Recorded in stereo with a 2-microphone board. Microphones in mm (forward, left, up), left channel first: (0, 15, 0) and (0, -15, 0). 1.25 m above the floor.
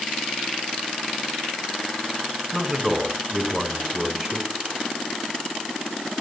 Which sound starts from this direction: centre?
A man speaking, at 2.5 s.